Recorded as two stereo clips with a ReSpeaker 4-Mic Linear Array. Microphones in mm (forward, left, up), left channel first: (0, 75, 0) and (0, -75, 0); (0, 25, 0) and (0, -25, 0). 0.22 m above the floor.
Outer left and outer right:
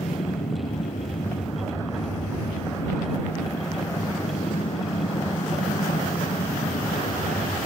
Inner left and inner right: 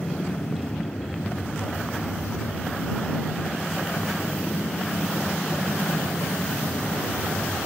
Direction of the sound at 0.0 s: 65° left (ahead or behind).